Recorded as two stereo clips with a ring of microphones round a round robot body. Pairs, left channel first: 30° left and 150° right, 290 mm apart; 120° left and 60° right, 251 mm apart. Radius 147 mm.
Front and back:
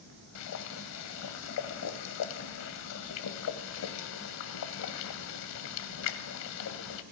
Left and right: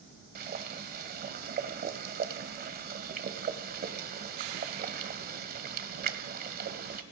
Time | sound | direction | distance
0.3 | boiling | 5° right | 1.7 m